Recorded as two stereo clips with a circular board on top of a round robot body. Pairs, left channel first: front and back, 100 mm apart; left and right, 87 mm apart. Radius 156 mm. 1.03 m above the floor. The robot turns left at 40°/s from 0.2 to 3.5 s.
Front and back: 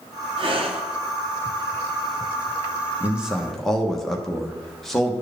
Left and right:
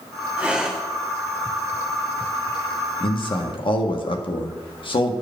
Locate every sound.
0.4 s breathing: 160° right, 1.2 m; by 0.8 s straight behind, 1.2 m
3.0 s a man speaking: 105° left, 1.2 m; by 5.1 s 85° left, 1.2 m